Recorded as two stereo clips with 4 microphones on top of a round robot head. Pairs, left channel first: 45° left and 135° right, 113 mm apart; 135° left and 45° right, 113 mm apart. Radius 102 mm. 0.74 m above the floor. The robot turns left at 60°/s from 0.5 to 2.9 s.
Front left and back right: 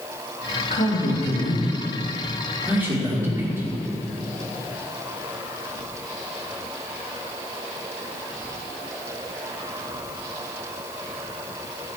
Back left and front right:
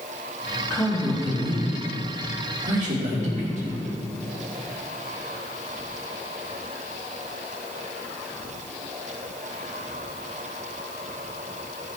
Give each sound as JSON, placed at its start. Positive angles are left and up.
{"t": 0.7, "sound": "a man speaking", "azimuth_deg": 60, "distance_m": 3.0}